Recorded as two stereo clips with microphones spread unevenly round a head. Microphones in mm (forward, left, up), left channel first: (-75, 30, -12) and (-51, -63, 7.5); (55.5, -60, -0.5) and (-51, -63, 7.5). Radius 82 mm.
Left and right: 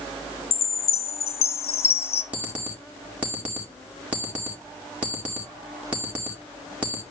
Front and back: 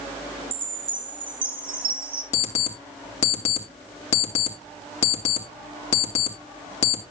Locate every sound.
0.5 s a chime: 120° left, 1.0 m
2.3 s an alarm clock: straight ahead, 2.0 m